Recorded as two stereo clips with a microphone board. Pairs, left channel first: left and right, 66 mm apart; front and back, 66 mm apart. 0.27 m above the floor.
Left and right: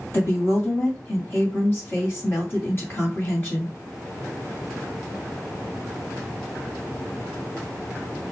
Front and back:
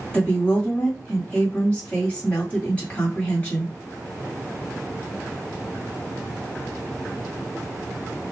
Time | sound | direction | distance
0.1 | a woman speaking | 60° left | 1.8 m